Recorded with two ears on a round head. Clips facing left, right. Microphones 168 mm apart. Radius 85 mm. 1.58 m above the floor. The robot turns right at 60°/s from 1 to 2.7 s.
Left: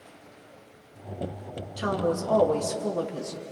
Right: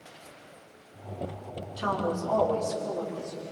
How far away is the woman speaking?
About 2.5 m.